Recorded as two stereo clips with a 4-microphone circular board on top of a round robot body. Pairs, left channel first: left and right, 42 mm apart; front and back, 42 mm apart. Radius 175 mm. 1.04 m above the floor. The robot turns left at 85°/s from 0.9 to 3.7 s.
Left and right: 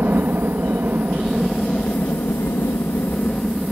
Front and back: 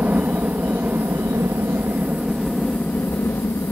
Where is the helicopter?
135° right; by 3.7 s 10° right.